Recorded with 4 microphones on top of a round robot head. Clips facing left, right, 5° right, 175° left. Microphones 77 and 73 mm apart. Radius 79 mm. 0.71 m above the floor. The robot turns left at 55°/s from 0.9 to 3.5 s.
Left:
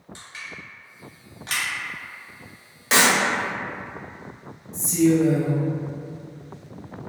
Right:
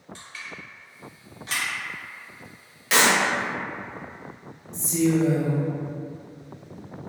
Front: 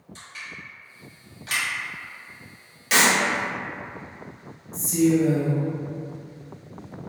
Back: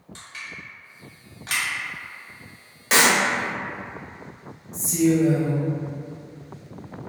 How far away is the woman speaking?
About 1.2 m.